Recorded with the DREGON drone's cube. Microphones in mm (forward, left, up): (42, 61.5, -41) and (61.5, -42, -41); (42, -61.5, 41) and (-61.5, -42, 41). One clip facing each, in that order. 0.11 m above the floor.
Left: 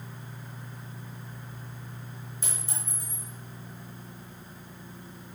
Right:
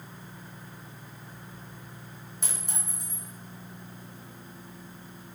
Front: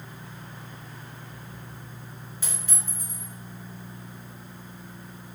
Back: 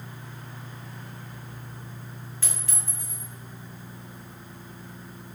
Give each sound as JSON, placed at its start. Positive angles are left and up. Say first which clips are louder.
{"t": 2.4, "sound": "a clink", "louder": "right 2 dB, front 2 dB", "azimuth_deg": -80, "distance_m": 1.8}